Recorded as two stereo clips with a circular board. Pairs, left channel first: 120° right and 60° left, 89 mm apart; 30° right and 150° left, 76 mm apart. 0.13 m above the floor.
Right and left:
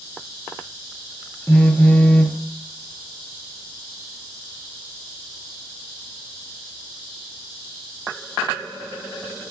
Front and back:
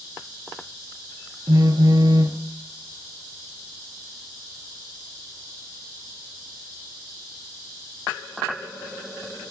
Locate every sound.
1.5 s a phone buzzing: 165° left, 0.6 m